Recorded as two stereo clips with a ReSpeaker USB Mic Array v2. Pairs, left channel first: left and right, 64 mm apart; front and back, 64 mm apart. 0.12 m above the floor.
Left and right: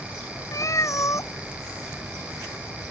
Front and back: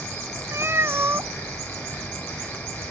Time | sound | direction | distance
0.5 | a cat meowing | 130° left | ?